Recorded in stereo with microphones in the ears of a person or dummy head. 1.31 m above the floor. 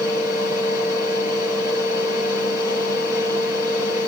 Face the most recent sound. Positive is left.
turn(degrees=-15)  # may be behind; listen again after turning